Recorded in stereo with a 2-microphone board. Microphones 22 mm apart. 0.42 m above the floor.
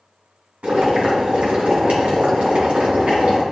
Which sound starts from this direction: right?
Boiling, at 0.6 s.